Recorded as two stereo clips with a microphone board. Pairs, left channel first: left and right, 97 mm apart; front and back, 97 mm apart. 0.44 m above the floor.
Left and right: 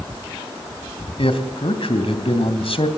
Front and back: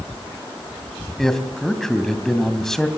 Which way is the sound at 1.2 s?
85° left.